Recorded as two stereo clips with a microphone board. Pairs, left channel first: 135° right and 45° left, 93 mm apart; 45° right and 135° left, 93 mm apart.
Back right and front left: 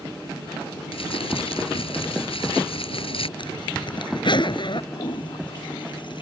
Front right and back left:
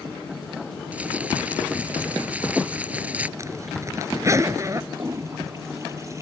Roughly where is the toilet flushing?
Behind.